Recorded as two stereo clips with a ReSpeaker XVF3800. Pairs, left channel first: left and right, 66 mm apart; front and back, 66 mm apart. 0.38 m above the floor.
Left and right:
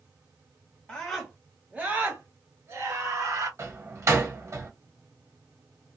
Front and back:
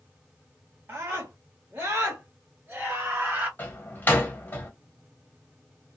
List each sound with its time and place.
0.9 s a scream: 150° left, 1.2 m; by 3.5 s 105° right, 2 m
3.6 s a door slam: 60° right, 1.3 m